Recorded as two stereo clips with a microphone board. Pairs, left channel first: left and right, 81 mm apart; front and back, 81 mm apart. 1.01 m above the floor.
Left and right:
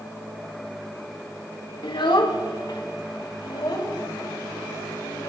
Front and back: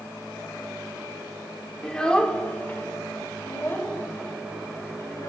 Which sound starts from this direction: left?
A child speaking, at 1.8 s.